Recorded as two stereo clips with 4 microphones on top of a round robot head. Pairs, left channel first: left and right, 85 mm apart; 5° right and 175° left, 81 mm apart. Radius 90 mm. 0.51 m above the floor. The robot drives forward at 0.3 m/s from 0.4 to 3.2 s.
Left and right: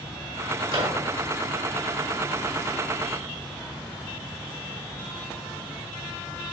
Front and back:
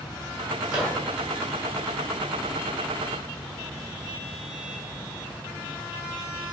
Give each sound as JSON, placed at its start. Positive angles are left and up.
{"t": 0.7, "sound": "a microwave", "azimuth_deg": -110, "distance_m": 2.0}